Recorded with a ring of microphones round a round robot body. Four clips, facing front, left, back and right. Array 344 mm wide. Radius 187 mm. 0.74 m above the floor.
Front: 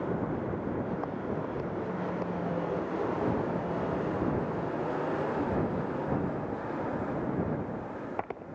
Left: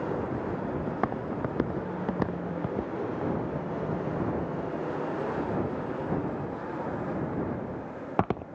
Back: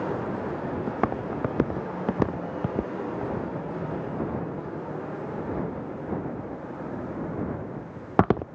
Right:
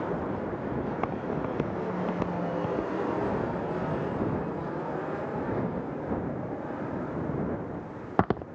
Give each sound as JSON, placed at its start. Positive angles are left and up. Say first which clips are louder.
{"t": 0.9, "sound": "footsteps", "louder": "even, back 6 dB", "azimuth_deg": 170}